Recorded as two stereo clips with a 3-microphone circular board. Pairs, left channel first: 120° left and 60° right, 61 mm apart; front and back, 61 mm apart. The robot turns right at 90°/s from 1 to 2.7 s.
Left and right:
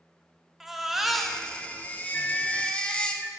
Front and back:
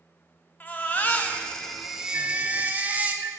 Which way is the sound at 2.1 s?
Straight behind.